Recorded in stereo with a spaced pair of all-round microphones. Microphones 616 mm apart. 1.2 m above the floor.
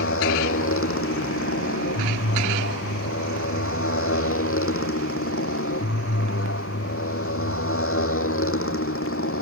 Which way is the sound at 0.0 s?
20° left (ahead or behind).